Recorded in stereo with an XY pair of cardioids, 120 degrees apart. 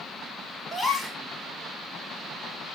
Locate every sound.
0.7 s a gasp: 15° left, 6 m